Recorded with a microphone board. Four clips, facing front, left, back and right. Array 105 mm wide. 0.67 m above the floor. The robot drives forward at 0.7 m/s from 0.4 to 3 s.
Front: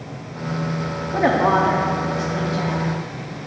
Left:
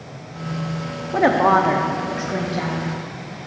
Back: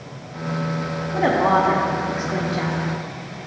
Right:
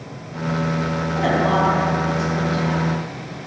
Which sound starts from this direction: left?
A woman speaking, at 1.1 s.